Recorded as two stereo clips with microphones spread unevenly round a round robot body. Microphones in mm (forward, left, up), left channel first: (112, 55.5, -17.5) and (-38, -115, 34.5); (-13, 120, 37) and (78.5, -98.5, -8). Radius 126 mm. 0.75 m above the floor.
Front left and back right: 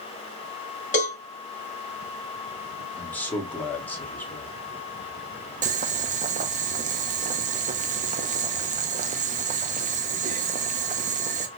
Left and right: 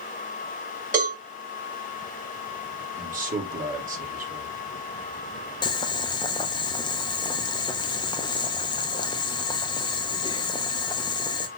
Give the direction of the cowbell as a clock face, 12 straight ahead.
12 o'clock.